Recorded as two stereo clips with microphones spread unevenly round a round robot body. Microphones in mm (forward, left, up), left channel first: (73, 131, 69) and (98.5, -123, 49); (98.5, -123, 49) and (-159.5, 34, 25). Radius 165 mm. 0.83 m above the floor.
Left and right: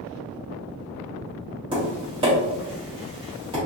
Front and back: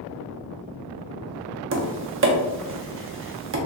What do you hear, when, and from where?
1.7 s tapping: 160° right, 0.6 m